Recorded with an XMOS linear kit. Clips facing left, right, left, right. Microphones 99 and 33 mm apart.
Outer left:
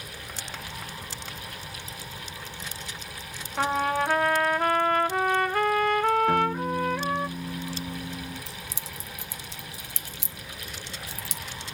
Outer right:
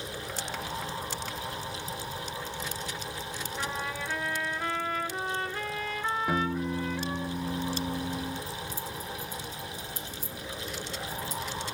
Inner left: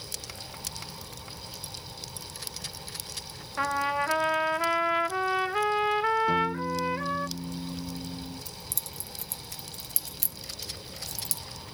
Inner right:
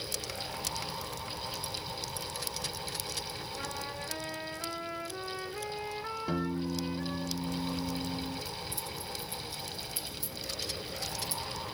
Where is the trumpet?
60° left (ahead or behind), 0.6 m.